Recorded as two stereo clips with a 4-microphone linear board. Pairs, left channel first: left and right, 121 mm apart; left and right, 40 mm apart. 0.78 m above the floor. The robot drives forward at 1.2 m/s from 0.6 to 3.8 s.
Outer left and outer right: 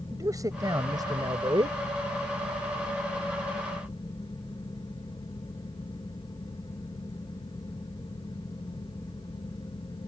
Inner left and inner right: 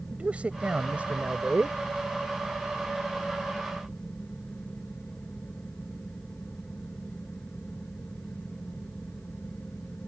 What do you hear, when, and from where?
0.1 s a man speaking: 30° right (ahead or behind); by 1.8 s 45° right (ahead or behind)